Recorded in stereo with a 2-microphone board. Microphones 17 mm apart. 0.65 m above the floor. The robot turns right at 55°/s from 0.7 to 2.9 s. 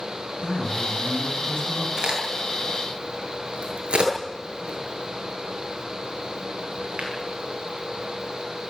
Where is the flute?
I don't hear a flute.